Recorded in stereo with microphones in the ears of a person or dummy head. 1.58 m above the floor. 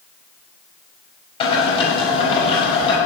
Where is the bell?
I don't hear a bell.